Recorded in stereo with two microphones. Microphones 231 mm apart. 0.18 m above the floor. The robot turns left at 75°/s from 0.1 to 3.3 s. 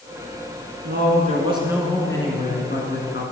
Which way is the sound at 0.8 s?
105° right.